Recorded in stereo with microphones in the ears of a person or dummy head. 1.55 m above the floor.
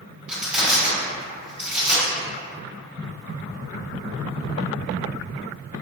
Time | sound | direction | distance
0.3 | crushing | 5° right (ahead or behind) | 1.8 m